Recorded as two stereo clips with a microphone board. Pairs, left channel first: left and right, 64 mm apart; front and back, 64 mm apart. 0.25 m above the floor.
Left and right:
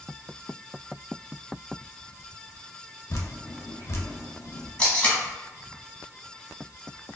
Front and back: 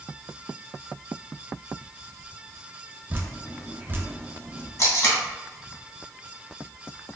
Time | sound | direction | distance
3.1 | dripping | 125° left | 0.6 m
4.8 | tape being pulled | 20° left | 1.1 m